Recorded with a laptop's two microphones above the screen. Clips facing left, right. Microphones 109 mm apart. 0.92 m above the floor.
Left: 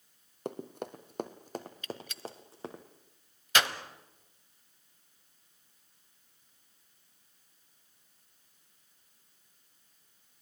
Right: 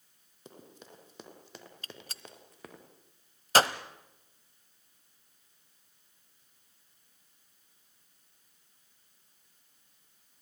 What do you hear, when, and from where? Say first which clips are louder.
0.5 s running footsteps: left 13 dB; 65° left (ahead or behind), 1.9 m; by 2.8 s 30° left (ahead or behind), 3.5 m
1.8 s a gunshot: left 8 dB; 40° right (ahead or behind), 1.1 m